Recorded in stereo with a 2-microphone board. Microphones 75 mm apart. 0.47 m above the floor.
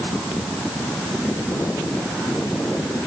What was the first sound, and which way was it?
Only background noise.